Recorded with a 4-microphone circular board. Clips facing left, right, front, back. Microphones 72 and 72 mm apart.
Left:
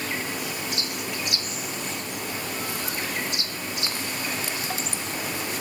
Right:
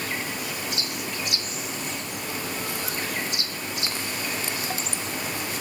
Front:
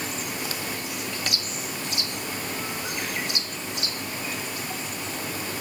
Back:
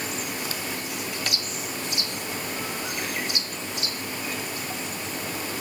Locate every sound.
Only background noise.